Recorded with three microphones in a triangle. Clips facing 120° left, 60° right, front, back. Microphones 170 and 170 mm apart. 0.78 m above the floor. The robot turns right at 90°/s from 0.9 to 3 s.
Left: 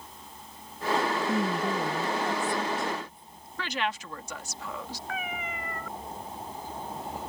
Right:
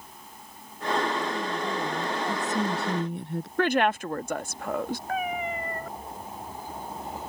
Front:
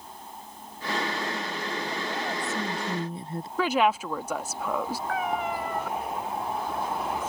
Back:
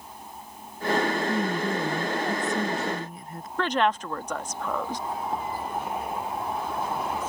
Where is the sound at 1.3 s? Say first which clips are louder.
Left 2 dB, back 7 dB; 145° left; by 3.5 s 60° right.